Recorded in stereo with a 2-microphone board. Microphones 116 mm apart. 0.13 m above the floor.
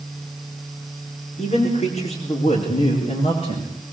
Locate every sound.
1.4 s a man speaking: 70° left (ahead or behind), 8.5 m; by 3.9 s 50° left (ahead or behind), 9 m